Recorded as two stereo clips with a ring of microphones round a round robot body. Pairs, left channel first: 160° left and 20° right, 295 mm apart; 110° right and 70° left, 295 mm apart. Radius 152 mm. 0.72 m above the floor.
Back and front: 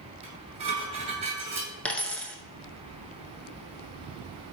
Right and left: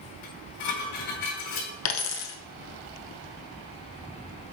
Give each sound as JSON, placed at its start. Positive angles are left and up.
{"t": 0.2, "sound": "dishes clattering", "azimuth_deg": -95, "distance_m": 3.5}
{"t": 1.9, "sound": "a dropped coin", "azimuth_deg": -120, "distance_m": 0.8}